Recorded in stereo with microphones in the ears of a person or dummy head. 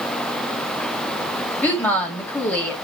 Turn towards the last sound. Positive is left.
turn(degrees=10)  # may be behind; listen again after turning